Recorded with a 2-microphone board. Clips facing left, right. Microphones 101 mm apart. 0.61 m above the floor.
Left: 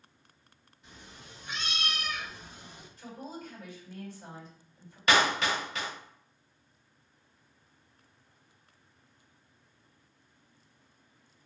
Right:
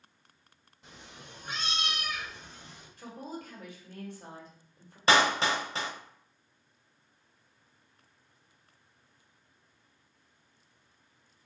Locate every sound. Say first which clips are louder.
0.8 s a cat meowing: right 1 dB; 75° right (ahead or behind), 0.8 m; by 2.9 s 20° left (ahead or behind), 1.0 m
3.0 s a woman speaking: right 1 dB; 55° right (ahead or behind), 1.5 m
5.1 s a clap: right 1 dB; 30° right (ahead or behind), 0.6 m